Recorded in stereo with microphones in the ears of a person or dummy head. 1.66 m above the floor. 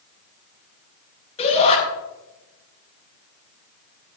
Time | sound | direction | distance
1.4 | a shout | 30° left (ahead or behind) | 7 m